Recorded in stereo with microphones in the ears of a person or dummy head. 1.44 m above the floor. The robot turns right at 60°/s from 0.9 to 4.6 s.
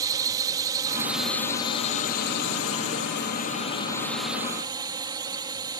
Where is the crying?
No crying in this recording.